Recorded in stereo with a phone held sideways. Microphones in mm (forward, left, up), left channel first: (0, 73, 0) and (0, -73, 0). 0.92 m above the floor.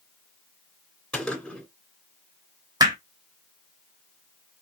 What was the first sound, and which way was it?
A gunshot, 10° left (ahead or behind).